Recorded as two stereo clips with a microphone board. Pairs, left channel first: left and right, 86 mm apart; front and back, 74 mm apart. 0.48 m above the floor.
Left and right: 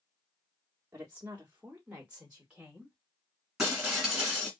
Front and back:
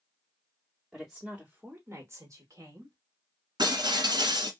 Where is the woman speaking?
85° right, 0.8 m; by 3.0 s 170° right, 1.3 m.